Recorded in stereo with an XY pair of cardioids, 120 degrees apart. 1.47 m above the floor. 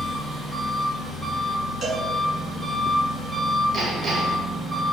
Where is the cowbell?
40° right, 1.8 m.